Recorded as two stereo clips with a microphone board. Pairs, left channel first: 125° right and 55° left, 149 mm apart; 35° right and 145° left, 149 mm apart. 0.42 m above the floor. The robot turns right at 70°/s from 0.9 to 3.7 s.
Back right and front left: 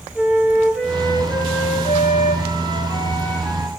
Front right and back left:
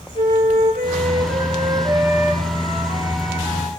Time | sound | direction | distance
0.1 | a flute | 145° left | 3 m